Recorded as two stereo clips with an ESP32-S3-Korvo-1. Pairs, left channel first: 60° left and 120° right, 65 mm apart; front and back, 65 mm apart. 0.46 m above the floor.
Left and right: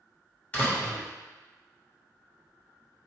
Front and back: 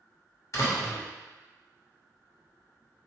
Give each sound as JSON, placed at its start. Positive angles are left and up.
{"t": 0.5, "sound": "a door slam", "azimuth_deg": 0, "distance_m": 1.1}